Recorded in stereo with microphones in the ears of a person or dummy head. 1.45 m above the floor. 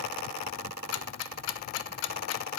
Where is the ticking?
70° left (ahead or behind), 0.7 m.